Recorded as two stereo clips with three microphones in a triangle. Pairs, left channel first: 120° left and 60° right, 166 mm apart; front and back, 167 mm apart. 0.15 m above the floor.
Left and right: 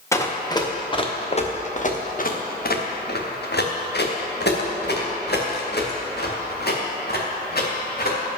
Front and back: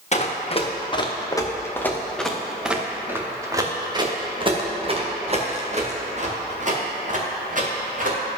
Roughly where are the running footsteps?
Ahead left.